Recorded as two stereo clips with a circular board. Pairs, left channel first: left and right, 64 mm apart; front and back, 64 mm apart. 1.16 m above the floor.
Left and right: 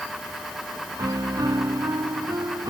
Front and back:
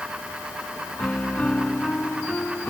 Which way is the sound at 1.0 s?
70° right.